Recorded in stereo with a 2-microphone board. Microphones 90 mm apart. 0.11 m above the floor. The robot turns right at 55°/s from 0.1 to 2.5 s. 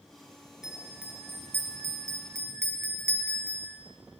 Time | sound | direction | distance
0.6 | a bell | 170° right | 1.4 m